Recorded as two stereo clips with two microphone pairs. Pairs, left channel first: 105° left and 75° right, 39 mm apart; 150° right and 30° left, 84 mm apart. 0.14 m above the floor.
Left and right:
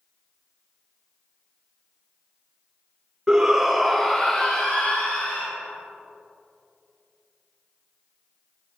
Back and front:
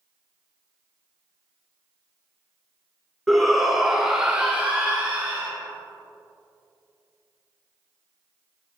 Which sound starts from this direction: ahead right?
A shout, at 3.3 s.